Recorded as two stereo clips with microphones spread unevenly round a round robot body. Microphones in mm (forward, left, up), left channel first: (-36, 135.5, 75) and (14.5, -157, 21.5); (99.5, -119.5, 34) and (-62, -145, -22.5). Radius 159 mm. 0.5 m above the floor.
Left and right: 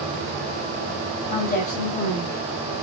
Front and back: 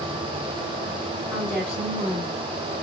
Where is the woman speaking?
160° left, 1.5 m; by 2.8 s 90° left, 1.4 m.